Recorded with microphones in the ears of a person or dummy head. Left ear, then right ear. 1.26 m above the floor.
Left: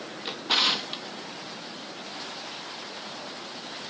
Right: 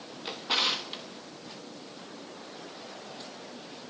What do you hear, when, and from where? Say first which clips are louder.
0.2 s a drawer: left 4 dB; 5° left (ahead or behind), 1.0 m